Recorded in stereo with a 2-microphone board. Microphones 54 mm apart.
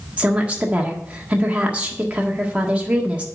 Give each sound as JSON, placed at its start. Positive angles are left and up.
{"t": 0.2, "sound": "a woman speaking", "side_deg": -20, "distance_m": 1.6}